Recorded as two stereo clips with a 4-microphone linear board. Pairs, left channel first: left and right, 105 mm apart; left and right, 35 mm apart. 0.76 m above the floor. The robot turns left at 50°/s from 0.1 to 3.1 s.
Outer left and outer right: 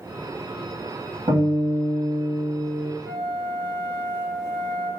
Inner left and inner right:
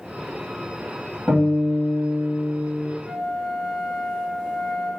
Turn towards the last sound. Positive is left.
turn(degrees=5)  # may be behind; listen again after turning